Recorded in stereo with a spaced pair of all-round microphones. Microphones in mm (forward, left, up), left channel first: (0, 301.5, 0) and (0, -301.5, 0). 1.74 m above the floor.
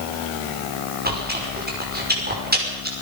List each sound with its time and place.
1.1 s chewing: 15° right (ahead or behind), 5 m